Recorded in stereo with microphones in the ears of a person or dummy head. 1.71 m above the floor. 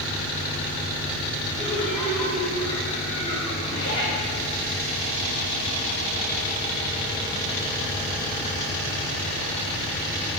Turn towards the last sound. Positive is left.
turn(degrees=75)  # may be behind; listen again after turning